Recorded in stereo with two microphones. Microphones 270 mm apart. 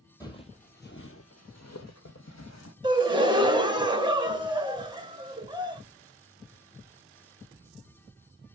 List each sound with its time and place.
0.2 s footsteps: 15° left (ahead or behind), 0.7 m; by 2.7 s 70° left (ahead or behind), 1.3 m
2.8 s a gasp: 15° right (ahead or behind), 0.6 m